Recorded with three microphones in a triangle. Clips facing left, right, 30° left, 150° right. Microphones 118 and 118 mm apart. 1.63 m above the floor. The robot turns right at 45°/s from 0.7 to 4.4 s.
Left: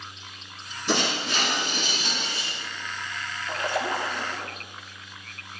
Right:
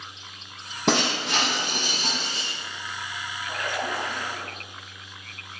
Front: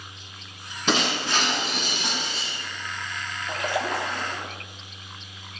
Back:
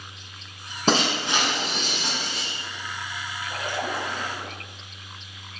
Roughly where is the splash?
Ahead left.